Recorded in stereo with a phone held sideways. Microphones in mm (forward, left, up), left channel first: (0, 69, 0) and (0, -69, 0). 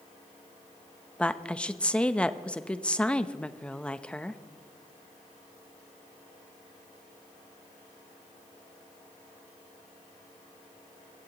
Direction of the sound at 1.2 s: 10° left (ahead or behind).